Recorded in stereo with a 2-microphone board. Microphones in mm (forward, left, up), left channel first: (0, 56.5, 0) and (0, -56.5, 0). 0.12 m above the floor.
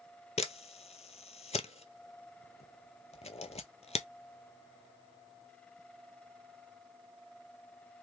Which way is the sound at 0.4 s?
75° left (ahead or behind).